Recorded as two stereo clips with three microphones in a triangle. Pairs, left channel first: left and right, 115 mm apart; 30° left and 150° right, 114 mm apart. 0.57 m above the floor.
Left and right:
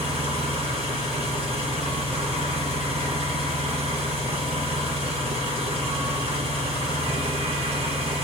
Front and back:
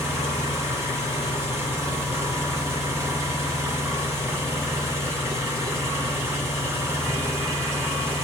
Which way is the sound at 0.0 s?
85° right.